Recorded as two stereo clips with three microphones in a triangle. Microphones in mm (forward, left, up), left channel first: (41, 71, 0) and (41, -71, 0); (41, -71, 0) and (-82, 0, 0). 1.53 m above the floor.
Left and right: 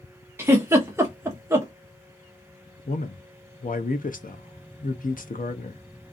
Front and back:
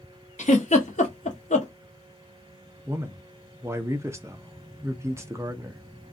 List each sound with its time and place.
0.4 s a giggle: 20° right, 0.9 m
2.9 s a man speaking: 80° left, 0.6 m